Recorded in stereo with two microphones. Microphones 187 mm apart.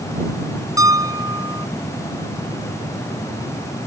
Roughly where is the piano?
Centre.